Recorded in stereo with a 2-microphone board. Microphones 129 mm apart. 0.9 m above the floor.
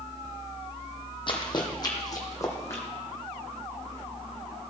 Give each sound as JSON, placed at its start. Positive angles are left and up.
{"t": 1.3, "sound": "running footsteps", "side_deg": 40, "distance_m": 1.5}